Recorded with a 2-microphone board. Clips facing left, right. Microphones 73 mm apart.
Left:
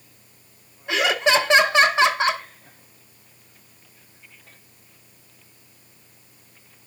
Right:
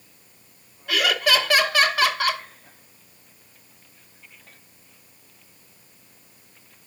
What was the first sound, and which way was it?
Laughter, 25° left (ahead or behind).